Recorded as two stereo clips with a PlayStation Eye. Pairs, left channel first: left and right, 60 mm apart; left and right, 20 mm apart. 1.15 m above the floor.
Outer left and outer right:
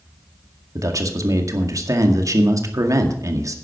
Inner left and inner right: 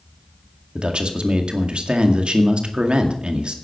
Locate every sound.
0.8 s a man speaking: 65° right (ahead or behind), 2 m